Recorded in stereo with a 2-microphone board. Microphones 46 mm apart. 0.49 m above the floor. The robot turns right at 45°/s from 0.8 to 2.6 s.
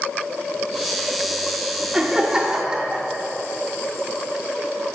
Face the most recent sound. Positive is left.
turn(degrees=-15)  # may be behind; listen again after turning